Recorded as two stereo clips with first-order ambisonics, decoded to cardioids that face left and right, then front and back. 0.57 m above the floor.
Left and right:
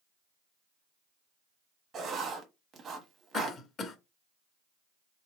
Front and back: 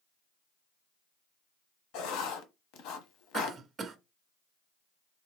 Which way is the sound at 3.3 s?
125° left.